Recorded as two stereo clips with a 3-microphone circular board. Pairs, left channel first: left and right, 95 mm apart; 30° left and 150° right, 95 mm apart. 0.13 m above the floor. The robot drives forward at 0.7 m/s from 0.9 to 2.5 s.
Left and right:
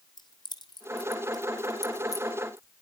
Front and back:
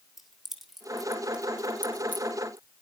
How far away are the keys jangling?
About 2 m.